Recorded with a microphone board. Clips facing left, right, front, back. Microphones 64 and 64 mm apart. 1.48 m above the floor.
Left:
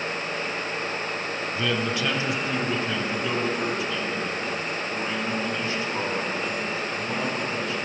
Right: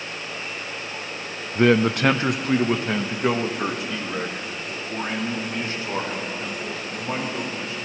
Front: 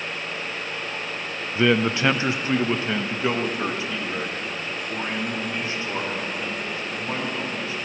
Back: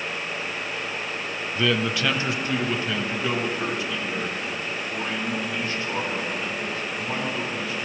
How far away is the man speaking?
About 0.5 m.